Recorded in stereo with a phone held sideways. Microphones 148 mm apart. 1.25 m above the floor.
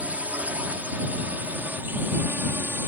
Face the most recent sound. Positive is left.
turn(degrees=-15)  # may be behind; listen again after turning